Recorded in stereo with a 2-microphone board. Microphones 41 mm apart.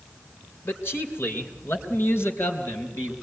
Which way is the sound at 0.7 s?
70° left (ahead or behind).